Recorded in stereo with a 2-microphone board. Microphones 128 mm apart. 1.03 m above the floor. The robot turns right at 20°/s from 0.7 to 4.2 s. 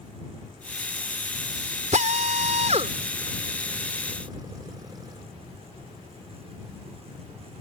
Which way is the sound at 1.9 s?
75° right (ahead or behind).